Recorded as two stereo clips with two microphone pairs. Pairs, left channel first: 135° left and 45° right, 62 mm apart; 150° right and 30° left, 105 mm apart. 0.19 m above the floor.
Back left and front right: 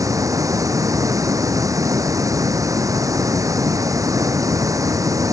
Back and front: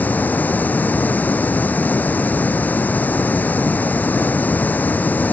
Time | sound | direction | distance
0.0 | running water | 75° right | ?